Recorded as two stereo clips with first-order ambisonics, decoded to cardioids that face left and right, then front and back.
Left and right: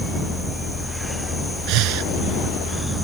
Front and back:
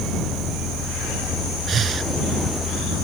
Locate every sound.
1.7 s breathing: 120° right